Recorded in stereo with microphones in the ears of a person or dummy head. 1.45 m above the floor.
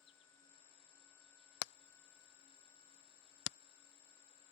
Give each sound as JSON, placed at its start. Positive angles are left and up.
{"t": 0.0, "sound": "an insect", "side_deg": 35}
{"t": 1.6, "sound": "hammering", "side_deg": 75}